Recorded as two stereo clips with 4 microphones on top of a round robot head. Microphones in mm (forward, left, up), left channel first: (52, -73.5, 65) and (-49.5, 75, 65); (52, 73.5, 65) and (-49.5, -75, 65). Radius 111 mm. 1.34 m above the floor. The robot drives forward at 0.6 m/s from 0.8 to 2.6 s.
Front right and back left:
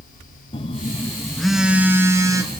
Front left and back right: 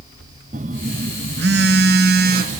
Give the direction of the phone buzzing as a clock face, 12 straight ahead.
3 o'clock.